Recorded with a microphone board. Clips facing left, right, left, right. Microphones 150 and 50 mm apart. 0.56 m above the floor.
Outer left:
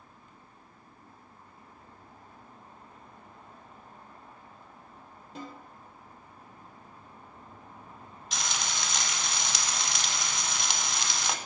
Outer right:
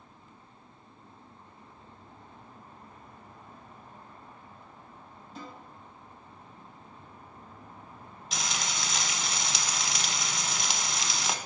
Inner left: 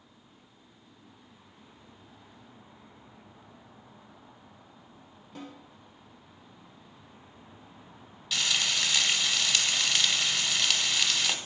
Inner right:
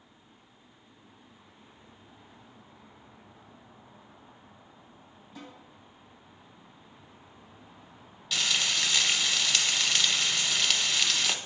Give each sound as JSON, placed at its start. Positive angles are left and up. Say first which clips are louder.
{"t": 5.3, "sound": "a snare drum", "louder": "outer left 2 dB, inner left 3 dB", "side_deg": 75, "distance_m": 3.5}
{"t": 8.3, "sound": "frying", "louder": "even, even", "side_deg": 0, "distance_m": 0.8}